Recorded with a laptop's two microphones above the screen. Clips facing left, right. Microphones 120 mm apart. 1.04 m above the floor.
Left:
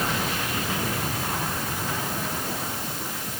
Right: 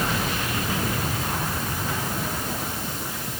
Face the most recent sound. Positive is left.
No sound to turn to.